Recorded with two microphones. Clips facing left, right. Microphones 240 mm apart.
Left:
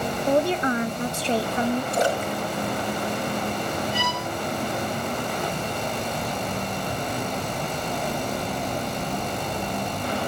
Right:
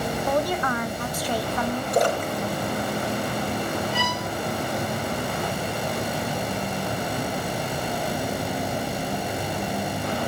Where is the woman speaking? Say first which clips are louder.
Left 5 dB; 30° left (ahead or behind), 0.6 m.